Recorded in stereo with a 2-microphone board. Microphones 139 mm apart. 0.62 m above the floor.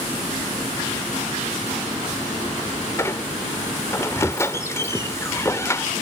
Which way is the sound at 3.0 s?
20° left (ahead or behind).